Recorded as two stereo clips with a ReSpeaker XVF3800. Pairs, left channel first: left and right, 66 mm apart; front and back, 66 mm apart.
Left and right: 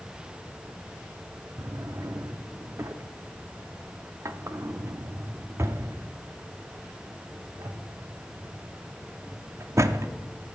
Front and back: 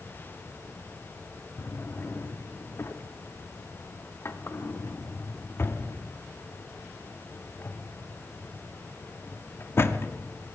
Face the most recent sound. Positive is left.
turn(degrees=-50)